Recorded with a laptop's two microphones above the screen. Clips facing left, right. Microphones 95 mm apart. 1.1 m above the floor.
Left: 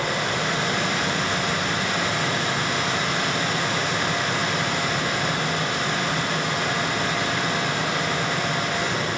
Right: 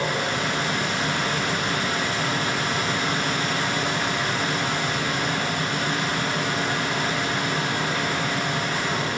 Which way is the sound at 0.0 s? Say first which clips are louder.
Even; 70° left (ahead or behind).